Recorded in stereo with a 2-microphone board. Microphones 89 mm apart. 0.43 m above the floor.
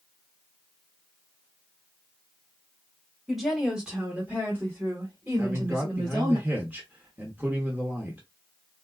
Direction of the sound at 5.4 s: 20° right (ahead or behind).